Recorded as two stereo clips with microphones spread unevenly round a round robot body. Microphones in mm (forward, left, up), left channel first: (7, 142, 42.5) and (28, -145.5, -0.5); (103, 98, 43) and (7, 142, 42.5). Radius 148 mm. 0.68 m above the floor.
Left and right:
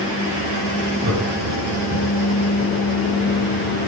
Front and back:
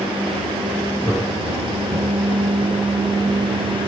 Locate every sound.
1.0 s laughter: 130° right, 5 m; by 2.3 s 140° right, 5.5 m